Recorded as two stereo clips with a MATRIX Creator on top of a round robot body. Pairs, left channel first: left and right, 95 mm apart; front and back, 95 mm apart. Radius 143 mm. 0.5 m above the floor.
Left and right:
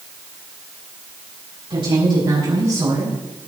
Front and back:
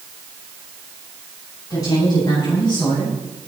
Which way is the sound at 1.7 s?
55° right.